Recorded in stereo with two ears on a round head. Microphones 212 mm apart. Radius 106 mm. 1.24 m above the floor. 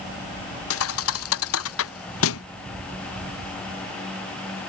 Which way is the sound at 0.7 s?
60° left (ahead or behind).